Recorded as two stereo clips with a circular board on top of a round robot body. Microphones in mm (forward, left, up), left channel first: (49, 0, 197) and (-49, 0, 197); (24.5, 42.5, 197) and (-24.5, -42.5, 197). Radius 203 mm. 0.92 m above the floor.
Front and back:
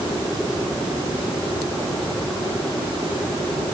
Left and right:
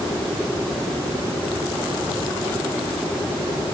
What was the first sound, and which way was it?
Only background noise.